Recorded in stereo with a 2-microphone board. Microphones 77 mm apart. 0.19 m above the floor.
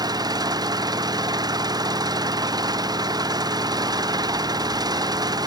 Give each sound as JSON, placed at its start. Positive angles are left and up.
{"t": 0.0, "sound": "an engine running", "side_deg": -60}